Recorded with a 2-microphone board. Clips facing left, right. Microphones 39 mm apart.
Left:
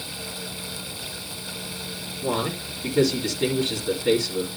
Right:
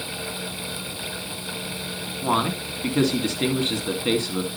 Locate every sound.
2.2 s a man speaking: 40° right (ahead or behind), 2 m